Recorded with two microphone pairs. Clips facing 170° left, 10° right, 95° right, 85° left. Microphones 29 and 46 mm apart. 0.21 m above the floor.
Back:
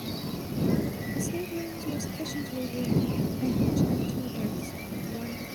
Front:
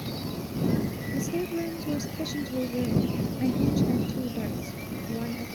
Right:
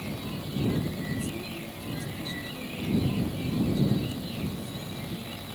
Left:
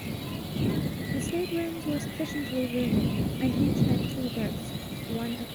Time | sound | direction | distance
1.1 | a woman speaking | 55° left | ?